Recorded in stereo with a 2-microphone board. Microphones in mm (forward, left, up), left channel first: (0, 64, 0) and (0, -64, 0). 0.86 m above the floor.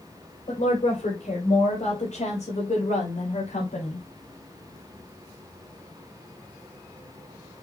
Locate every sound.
0.5 s a woman speaking: 70° left (ahead or behind), 4.5 m; by 4.0 s 75° left (ahead or behind), 4 m